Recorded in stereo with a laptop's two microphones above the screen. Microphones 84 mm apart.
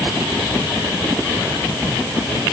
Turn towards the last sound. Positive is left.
No sound to turn to.